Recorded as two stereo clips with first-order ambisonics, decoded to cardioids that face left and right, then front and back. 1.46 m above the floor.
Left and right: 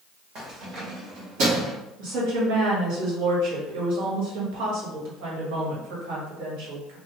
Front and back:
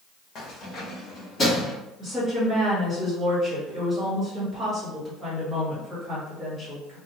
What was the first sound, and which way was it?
Keys jangling, 45° right.